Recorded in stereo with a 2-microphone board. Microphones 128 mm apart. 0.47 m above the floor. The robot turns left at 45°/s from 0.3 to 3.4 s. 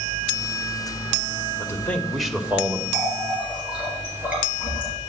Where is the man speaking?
30° left, 1.3 m; by 2.8 s 25° right, 1.3 m.